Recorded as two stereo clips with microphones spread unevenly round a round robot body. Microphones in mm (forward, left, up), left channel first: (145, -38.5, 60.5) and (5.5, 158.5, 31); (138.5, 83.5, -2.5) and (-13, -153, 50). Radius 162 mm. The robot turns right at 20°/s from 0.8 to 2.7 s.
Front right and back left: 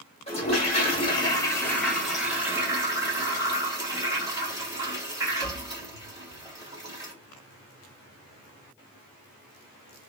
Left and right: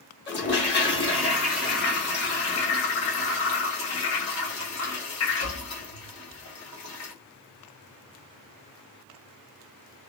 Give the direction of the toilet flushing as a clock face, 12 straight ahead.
12 o'clock.